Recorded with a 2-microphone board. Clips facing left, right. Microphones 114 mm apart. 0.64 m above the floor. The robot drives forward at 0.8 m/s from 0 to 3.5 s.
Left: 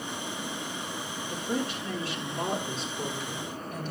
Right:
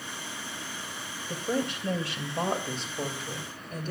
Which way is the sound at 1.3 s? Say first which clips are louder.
Right 2 dB; 70° right (ahead or behind).